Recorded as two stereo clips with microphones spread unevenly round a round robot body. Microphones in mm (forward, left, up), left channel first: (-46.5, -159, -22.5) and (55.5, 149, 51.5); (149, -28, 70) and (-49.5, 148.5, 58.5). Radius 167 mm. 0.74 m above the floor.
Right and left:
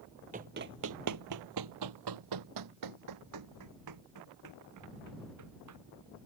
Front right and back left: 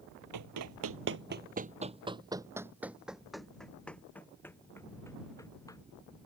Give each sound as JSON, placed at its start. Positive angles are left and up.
{"t": 0.3, "sound": "running footsteps", "azimuth_deg": 130}